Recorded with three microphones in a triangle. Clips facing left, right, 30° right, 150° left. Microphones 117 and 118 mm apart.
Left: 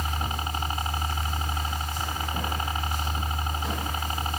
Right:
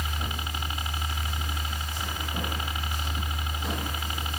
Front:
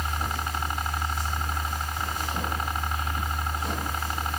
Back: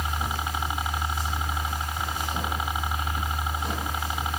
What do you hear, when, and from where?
0.0 s a helicopter: 70° left